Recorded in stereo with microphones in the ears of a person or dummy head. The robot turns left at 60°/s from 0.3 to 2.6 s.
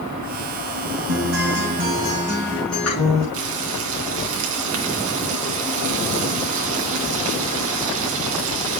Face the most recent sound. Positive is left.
turn(degrees=-75)  # may be behind; listen again after turning